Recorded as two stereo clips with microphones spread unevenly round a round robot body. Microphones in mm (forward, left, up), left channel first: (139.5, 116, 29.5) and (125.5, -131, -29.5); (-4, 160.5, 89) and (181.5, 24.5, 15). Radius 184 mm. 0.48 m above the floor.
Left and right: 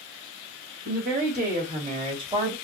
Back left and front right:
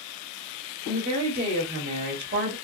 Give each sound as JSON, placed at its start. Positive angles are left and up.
{"t": 0.8, "sound": "a woman speaking", "azimuth_deg": -65, "distance_m": 2.5}